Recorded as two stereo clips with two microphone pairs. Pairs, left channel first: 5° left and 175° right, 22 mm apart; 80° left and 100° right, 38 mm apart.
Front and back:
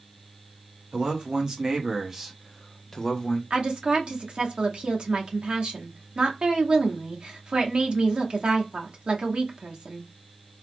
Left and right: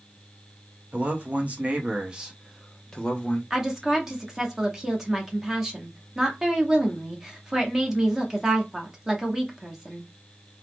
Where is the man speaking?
140° right, 1.3 m; by 3.4 s 35° left, 0.7 m.